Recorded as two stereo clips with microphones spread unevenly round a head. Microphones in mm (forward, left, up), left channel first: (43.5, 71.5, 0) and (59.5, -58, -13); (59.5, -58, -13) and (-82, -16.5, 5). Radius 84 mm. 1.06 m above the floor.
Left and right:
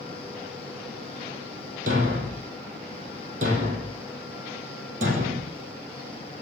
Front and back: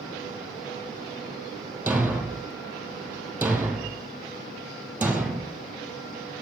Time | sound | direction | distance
1.9 | a thud | 120° right | 2.5 m